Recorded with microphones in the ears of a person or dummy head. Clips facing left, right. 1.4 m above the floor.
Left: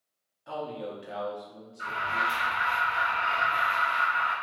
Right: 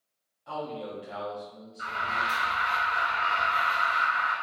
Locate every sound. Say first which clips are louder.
0.5 s a man speaking: even; 15° left (ahead or behind), 0.8 m
1.8 s an alarm: left 1 dB; 25° right (ahead or behind), 1.4 m